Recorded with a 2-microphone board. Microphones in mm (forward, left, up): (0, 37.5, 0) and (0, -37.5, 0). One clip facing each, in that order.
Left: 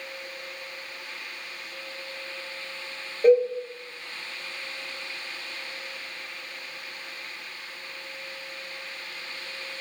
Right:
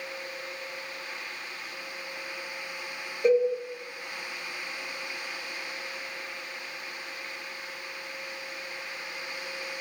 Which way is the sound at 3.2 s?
35° left (ahead or behind).